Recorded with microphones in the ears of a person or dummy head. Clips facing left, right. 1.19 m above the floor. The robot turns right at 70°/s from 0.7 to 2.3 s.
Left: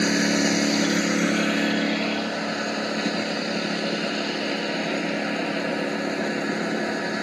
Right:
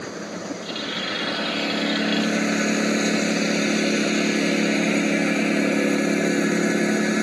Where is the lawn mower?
100° left; by 7.2 s 145° right.